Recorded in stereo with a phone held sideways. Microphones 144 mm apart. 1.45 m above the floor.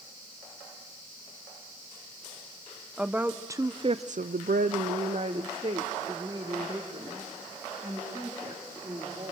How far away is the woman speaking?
About 1.1 m.